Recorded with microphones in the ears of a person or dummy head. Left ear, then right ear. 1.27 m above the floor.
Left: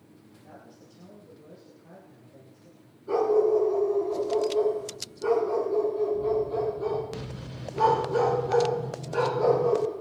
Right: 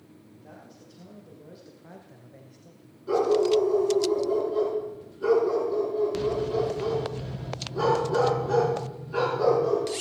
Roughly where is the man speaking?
Centre.